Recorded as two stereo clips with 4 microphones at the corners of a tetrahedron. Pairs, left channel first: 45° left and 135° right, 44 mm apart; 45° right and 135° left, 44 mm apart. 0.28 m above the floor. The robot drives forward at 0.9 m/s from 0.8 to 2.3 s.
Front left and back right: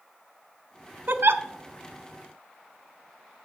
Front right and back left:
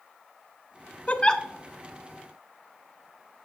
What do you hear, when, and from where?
1.1 s a giggle: 95° right, 0.6 m; by 1.4 s 125° right, 0.7 m